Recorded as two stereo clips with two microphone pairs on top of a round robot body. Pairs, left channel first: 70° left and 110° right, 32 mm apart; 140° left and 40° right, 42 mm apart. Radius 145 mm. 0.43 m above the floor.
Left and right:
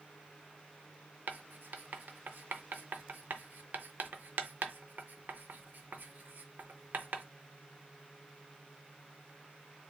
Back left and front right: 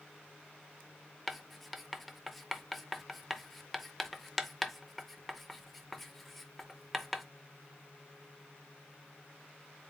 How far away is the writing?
About 0.6 m.